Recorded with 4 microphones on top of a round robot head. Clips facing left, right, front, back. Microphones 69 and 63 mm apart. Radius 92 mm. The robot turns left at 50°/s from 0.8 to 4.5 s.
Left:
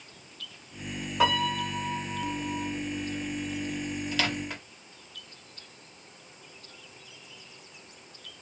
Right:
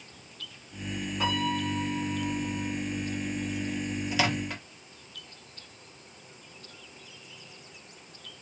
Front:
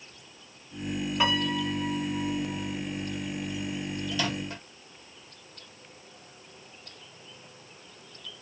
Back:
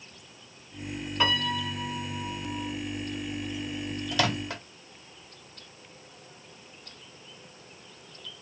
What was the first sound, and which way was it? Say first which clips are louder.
A piano: left 4 dB, even; 80° left.